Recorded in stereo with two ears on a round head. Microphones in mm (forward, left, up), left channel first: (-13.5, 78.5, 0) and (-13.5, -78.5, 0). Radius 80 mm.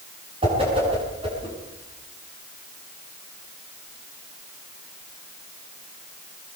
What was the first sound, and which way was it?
A whoosh, 30° right (ahead or behind).